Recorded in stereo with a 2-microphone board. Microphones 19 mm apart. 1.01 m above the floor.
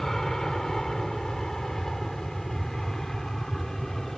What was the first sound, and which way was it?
An aircraft, 30° left (ahead or behind).